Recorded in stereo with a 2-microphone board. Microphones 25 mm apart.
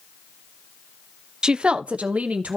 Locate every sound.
1.4 s a woman speaking: 35° right (ahead or behind), 0.5 m; by 2.6 s 70° right (ahead or behind), 0.9 m